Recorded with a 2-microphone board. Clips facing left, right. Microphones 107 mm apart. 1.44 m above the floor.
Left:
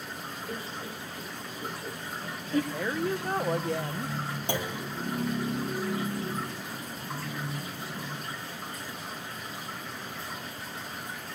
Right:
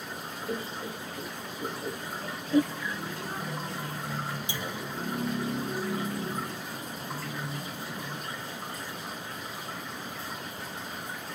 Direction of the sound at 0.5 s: 20° right (ahead or behind).